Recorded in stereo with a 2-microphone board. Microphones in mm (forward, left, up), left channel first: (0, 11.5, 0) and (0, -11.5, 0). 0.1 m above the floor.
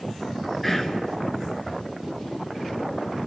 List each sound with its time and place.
0.6 s whispering: 5° left (ahead or behind), 1.1 m